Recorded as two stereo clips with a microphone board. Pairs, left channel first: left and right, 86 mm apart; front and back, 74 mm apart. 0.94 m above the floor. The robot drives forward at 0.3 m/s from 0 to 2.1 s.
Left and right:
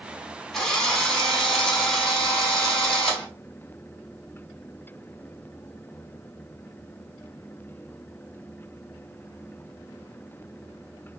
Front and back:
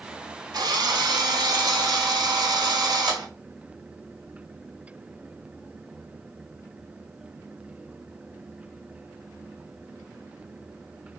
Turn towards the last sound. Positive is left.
turn(degrees=175)